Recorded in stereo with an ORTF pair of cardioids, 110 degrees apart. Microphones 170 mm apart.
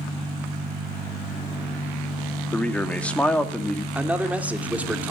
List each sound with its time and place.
2.5 s a man speaking: 10° left, 2.5 m
4.0 s a man speaking: 10° right, 2.5 m